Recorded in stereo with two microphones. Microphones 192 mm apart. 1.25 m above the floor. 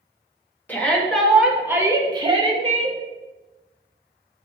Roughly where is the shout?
Centre.